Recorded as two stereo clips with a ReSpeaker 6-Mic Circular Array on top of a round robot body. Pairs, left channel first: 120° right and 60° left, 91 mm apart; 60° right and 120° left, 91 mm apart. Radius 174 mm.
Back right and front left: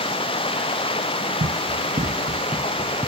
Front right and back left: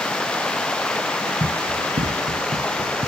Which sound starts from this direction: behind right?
Running water, at 0.0 s.